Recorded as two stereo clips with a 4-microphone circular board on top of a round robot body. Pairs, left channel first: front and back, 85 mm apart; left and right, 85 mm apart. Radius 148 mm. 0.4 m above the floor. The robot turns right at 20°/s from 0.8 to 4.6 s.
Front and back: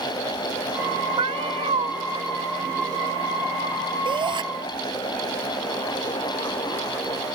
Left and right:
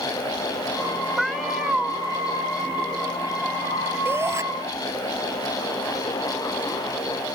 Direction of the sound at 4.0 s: 155° right.